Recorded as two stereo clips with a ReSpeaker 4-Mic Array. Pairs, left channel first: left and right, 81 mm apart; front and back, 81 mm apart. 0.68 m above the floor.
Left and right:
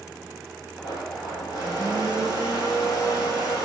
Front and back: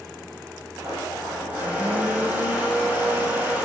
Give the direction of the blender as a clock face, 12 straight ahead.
8 o'clock.